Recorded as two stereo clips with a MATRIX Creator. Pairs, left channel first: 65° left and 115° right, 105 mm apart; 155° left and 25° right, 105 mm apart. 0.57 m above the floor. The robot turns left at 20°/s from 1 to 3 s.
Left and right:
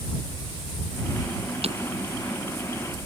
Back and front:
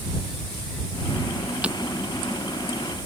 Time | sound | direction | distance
1.6 | breaking glass | 100° right | ?